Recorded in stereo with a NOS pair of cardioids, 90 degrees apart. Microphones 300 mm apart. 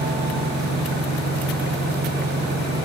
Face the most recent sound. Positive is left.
turn(degrees=-35)